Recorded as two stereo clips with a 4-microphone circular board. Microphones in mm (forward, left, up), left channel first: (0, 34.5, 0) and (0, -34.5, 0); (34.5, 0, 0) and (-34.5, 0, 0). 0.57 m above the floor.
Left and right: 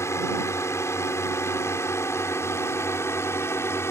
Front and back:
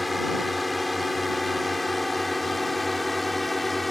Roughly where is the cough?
No cough in this recording.